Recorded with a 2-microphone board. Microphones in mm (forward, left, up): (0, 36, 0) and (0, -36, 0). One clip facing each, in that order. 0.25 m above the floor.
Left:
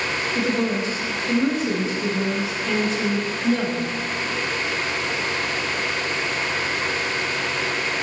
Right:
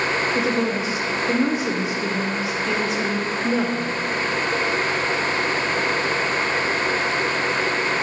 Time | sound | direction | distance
0.3 | a woman speaking | 10° right (ahead or behind) | 0.9 m